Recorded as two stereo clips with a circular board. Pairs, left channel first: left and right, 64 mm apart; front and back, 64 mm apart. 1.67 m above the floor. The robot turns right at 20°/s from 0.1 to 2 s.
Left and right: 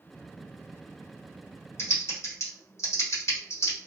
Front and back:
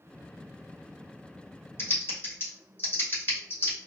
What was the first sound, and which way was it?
Typing on a keyboard, 45° left.